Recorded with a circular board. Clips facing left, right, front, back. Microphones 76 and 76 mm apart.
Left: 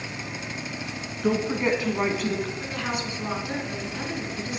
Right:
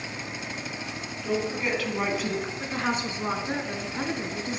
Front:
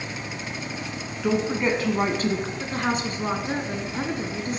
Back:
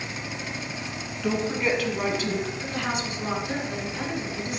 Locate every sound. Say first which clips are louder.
1.2 s a woman speaking: left 4 dB, front 2 dB; 70° left, 1.6 m; by 2.5 s 25° right, 1.4 m
2.6 s a woman speaking: right 2 dB, front 3 dB; 40° right, 1.5 m